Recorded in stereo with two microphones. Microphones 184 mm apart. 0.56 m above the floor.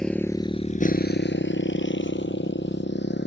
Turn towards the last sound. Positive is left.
turn(degrees=65)  # may be behind; listen again after turning